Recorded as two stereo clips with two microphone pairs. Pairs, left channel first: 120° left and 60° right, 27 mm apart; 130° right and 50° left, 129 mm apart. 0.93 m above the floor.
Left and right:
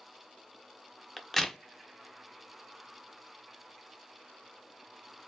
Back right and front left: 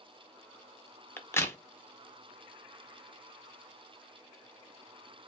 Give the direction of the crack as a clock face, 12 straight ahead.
6 o'clock.